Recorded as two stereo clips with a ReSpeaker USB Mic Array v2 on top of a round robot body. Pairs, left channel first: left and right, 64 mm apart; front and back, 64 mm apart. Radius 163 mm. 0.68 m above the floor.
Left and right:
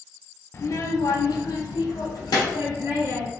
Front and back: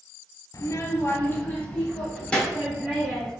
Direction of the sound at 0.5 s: 40° left.